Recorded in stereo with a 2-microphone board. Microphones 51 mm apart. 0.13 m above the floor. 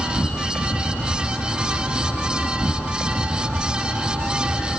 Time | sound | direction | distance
0.0 | an insect | 25° right (ahead or behind) | 1.0 m